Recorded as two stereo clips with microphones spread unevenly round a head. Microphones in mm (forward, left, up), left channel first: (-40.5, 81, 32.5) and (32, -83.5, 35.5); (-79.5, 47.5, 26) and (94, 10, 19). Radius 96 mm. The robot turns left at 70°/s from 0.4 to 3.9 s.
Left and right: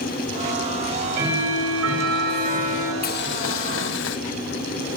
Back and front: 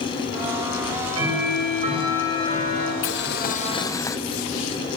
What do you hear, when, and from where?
0.8 s ticking: straight ahead, 9 m; by 2.9 s 145° right, 9 m
3.0 s boiling: 155° left, 1.3 m; by 4.2 s 95° left, 1.3 m